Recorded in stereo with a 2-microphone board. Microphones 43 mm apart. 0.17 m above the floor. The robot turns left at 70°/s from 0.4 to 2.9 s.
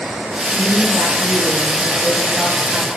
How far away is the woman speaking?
About 5 m.